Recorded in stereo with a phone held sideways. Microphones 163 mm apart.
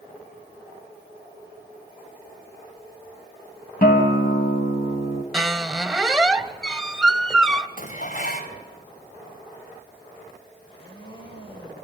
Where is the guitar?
60° left (ahead or behind), 3 m.